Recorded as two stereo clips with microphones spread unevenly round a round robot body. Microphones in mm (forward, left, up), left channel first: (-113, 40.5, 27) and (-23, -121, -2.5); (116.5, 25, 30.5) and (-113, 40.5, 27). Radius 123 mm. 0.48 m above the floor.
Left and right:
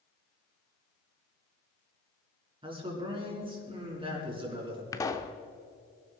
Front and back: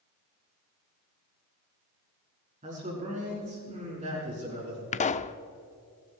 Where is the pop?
40° left, 0.5 m.